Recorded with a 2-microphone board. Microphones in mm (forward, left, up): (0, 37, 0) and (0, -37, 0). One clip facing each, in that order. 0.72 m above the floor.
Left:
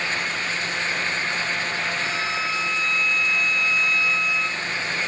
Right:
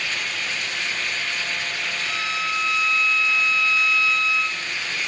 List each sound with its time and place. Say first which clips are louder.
2.0 s a violin: left 1 dB; 30° left (ahead or behind), 5.5 m